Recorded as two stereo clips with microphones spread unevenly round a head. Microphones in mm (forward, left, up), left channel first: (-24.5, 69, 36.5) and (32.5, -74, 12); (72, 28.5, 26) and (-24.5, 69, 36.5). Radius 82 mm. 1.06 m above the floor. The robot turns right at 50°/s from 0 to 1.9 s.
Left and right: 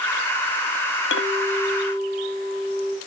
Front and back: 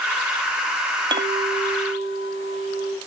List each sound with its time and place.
1.1 s a clink: 120° left, 0.7 m; by 3.0 s 160° left, 0.7 m